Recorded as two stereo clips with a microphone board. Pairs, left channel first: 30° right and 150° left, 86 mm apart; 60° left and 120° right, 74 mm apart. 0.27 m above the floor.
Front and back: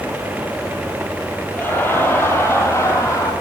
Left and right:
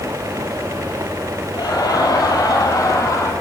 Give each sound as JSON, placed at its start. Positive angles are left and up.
{"t": 1.5, "sound": "laughter", "azimuth_deg": 40, "distance_m": 6.5}